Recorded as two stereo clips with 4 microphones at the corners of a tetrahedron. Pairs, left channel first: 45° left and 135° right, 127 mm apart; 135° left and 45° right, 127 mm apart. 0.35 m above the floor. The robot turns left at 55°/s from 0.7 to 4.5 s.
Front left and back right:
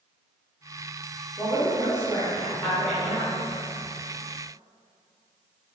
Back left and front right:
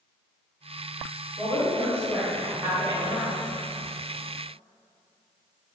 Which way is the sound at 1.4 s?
50° left.